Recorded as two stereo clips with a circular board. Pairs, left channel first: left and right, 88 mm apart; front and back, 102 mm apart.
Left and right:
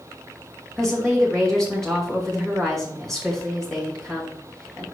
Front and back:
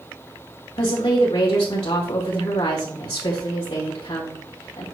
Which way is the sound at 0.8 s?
5° left.